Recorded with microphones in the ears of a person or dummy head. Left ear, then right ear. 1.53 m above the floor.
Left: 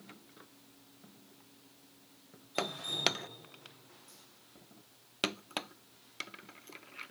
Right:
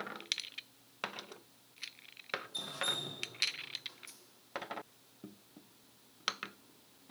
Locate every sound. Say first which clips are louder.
2.5 s dripping: left 3 dB; 75° right (ahead or behind), 1.9 m